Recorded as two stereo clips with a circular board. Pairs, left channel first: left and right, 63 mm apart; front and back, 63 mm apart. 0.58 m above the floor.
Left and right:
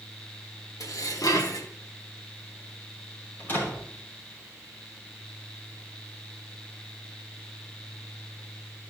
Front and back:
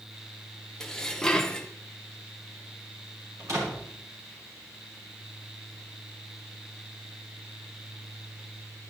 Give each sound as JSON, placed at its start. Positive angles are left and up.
{"t": 0.8, "sound": "dishes clattering", "azimuth_deg": 80, "distance_m": 1.0}
{"t": 3.4, "sound": "a door slam", "azimuth_deg": 145, "distance_m": 5.5}